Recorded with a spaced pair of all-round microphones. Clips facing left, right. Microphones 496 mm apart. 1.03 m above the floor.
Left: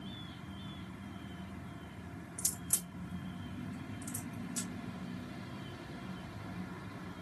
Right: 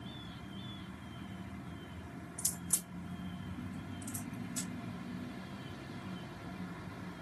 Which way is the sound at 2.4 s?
45° left (ahead or behind).